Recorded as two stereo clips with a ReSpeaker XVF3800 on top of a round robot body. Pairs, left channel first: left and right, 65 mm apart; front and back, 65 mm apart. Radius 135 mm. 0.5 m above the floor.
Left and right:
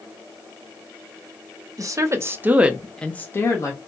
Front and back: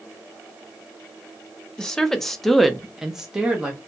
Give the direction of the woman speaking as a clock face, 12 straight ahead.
3 o'clock.